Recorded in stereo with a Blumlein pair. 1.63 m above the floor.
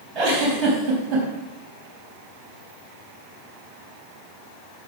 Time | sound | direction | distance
0.1 | a giggle | 25° right | 4 m